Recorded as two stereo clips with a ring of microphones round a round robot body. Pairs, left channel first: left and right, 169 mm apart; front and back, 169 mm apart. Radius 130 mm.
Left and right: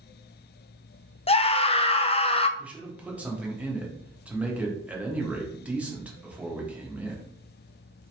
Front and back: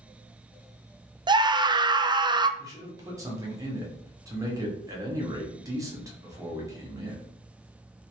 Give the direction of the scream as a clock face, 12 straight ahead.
8 o'clock.